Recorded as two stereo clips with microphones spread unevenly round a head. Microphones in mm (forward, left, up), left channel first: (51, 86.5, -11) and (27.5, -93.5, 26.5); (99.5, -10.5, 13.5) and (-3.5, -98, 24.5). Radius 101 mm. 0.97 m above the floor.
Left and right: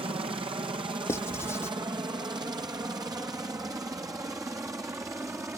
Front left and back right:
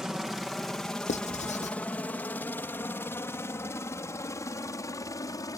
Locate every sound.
0.0 s a helicopter: 50° right; by 5.6 s 20° right
1.1 s writing: 10° left